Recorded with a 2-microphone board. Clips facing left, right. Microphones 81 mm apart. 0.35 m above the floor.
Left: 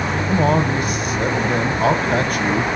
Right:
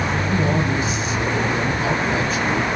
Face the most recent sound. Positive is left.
turn(degrees=55)  # may be behind; listen again after turning